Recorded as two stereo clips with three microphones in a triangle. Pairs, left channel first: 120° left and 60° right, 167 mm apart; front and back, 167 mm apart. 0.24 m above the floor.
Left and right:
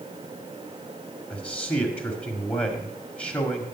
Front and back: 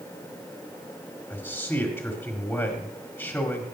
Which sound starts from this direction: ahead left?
A man speaking, at 1.3 s.